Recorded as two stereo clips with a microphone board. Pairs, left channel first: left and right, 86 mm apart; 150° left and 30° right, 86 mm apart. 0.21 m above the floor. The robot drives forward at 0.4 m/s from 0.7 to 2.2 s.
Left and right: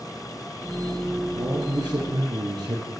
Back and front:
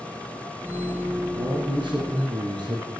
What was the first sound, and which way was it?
A man speaking, 55° right.